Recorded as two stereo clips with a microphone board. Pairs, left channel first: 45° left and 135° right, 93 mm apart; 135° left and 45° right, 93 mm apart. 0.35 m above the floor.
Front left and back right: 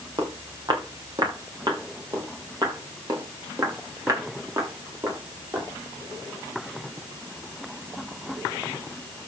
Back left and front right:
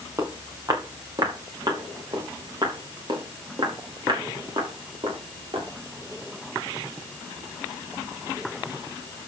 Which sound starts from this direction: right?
Footsteps, at 0.2 s.